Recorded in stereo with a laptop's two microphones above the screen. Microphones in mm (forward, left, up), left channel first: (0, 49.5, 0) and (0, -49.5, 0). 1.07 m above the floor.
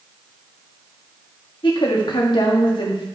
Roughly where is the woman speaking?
Left.